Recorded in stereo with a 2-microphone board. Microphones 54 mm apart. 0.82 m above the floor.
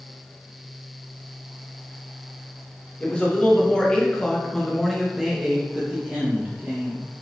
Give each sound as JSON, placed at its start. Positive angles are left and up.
{"t": 3.0, "sound": "a man speaking", "side_deg": 20, "distance_m": 1.2}